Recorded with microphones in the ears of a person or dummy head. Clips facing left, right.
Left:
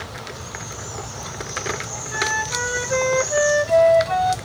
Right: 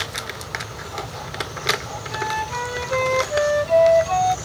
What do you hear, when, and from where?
2.1 s a flute: 15° left (ahead or behind)